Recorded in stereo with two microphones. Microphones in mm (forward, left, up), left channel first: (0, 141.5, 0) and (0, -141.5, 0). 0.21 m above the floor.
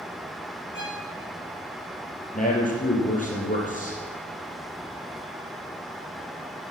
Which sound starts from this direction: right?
A violin, at 0.7 s.